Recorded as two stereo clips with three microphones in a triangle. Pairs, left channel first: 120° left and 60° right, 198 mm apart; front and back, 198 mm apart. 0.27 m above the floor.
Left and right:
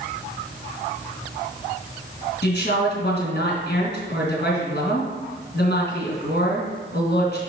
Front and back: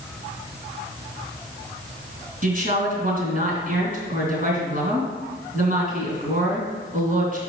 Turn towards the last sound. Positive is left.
turn(degrees=140)